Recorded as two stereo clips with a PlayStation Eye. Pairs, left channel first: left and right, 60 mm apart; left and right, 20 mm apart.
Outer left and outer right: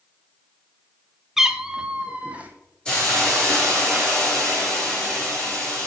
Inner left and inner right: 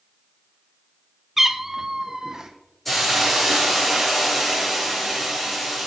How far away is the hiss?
About 6 m.